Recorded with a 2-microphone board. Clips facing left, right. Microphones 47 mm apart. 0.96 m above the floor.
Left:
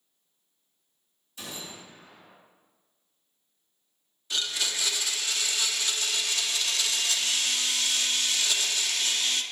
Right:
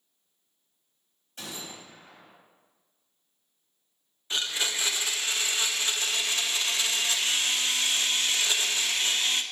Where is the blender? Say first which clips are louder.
Right 1 dB; 25° right (ahead or behind), 0.6 m.